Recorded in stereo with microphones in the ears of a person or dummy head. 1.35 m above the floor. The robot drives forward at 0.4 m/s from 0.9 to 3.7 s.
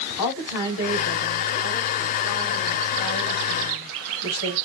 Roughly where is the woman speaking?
Left.